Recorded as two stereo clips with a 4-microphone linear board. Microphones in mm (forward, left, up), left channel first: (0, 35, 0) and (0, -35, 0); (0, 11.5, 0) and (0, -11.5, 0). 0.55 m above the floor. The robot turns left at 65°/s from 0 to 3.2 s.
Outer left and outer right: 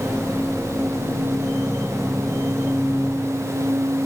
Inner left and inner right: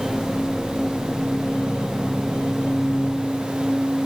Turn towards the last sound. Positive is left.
No sound to turn to.